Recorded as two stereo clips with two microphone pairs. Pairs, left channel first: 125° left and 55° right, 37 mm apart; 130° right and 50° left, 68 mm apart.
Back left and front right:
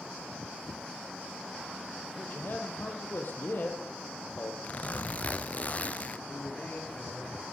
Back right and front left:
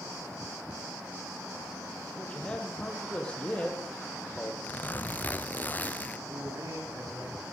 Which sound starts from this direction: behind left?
A man speaking, at 2.2 s.